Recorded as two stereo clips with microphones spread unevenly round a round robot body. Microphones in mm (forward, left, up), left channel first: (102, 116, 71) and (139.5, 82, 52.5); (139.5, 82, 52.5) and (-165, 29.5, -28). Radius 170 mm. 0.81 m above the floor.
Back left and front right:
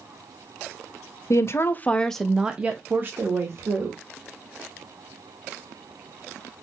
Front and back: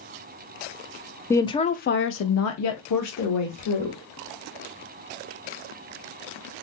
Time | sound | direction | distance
1.3 | a woman speaking | 105° left | 0.6 m